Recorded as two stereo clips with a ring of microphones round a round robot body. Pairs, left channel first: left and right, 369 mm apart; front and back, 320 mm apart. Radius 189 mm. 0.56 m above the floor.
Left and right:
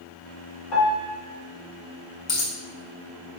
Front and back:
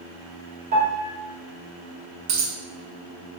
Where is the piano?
120° left, 1.5 m.